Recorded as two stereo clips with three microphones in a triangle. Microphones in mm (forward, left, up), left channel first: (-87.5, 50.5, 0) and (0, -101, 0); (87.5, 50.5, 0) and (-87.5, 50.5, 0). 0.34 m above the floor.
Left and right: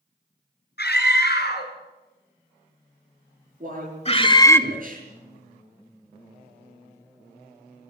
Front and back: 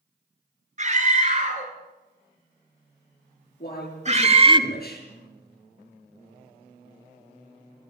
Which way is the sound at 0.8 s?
135° left.